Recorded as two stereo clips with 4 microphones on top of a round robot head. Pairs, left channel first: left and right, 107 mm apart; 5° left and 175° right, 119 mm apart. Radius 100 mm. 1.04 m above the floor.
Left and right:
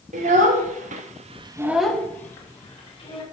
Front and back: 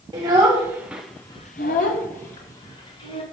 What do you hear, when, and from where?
0.1 s a child speaking: 110° right, 1.6 m; by 3.2 s 40° left, 2 m